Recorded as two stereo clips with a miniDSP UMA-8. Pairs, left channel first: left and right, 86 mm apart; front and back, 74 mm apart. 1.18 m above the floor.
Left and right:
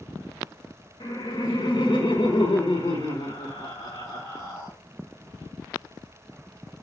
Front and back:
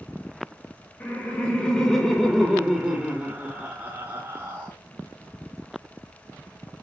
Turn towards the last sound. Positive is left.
turn(degrees=135)